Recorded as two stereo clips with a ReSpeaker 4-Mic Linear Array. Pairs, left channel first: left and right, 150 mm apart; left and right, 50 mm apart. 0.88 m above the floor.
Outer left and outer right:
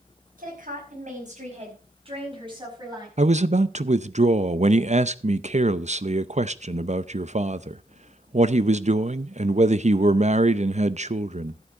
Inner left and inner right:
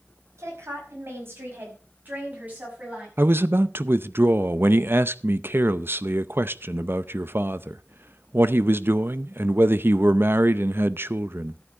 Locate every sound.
0.4 s a woman speaking: 65° right (ahead or behind), 5 m; by 3.1 s 25° right (ahead or behind), 6.5 m
3.2 s a man speaking: 50° right (ahead or behind), 0.6 m